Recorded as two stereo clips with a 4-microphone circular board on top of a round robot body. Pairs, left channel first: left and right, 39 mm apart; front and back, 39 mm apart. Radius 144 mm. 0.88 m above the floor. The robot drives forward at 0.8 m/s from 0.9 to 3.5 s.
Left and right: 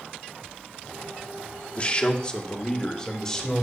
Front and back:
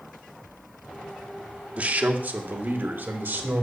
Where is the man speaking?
140° left, 1.1 m; by 3.6 s 165° left, 2.5 m.